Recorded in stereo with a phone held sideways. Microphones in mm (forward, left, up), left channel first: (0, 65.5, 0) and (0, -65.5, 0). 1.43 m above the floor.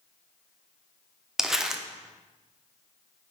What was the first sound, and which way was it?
Crumpling, 5° right (ahead or behind).